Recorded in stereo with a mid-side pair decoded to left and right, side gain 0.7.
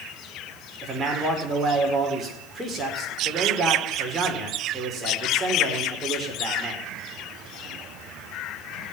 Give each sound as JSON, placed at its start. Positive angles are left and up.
{"t": 0.8, "sound": "a man speaking", "azimuth_deg": -25, "distance_m": 4.5}